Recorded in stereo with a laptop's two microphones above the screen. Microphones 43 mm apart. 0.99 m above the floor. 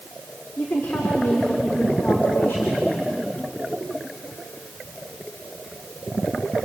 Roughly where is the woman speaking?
Left.